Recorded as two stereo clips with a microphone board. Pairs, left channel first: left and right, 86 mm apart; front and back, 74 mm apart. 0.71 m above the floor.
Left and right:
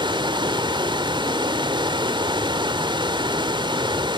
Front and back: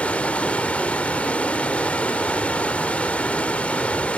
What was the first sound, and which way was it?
Running water, 75° right.